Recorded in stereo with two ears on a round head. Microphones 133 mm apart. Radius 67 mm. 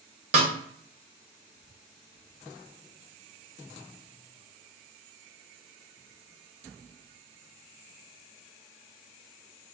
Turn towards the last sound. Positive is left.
turn(degrees=-50)  # may be behind; listen again after turning